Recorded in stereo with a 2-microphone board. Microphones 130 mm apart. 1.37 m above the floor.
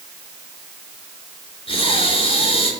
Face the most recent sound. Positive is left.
turn(degrees=45)  # may be behind; listen again after turning